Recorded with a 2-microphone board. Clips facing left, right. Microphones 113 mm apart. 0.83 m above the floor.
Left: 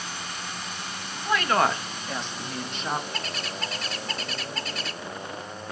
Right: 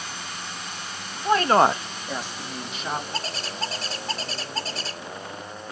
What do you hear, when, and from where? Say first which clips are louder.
1.2 s a woman speaking: right 5 dB; 35° right (ahead or behind), 0.9 m; by 3.0 s centre (ahead or behind), 2.5 m
3.1 s a bird: right 2 dB; 30° right (ahead or behind), 1.7 m